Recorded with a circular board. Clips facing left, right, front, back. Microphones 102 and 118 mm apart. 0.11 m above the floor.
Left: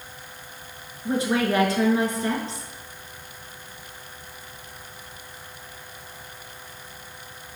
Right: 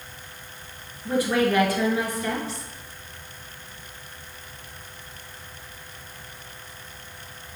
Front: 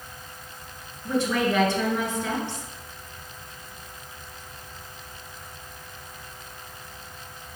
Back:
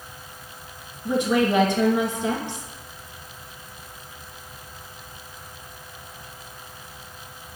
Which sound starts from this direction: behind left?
A woman speaking, at 1.1 s.